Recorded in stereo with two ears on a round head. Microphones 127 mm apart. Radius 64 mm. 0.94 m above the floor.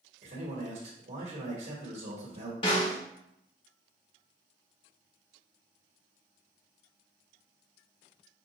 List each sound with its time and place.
0.2 s a man speaking: 50° right (ahead or behind), 1.4 m
2.6 s a snare drum: 40° left (ahead or behind), 1.2 m